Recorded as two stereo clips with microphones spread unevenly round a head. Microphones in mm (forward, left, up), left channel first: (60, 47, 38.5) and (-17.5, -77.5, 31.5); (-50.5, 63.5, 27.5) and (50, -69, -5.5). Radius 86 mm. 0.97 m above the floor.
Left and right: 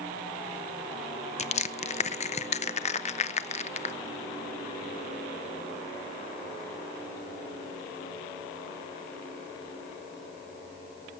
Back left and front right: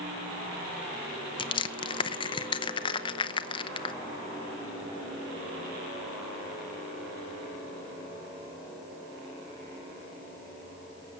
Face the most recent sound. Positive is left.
turn(degrees=65)